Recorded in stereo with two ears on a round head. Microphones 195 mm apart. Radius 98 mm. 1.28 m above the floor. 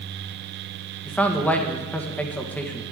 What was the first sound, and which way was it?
A man speaking, 5° left (ahead or behind).